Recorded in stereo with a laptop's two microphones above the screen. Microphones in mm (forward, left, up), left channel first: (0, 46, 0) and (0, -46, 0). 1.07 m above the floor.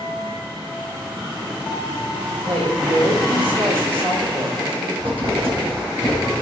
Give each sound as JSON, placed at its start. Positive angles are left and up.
{"t": 2.5, "sound": "a woman speaking", "side_deg": -80, "distance_m": 3.5}
{"t": 5.0, "sound": "writing", "side_deg": -75, "distance_m": 4.5}